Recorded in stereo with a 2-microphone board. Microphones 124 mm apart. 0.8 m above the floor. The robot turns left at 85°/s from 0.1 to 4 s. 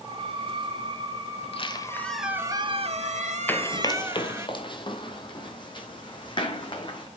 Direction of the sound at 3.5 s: 15° left (ahead or behind).